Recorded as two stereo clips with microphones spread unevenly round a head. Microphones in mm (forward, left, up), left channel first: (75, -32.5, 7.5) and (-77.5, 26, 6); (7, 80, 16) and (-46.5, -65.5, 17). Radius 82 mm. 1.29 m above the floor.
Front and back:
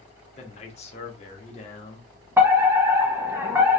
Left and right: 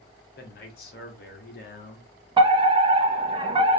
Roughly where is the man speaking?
Ahead left.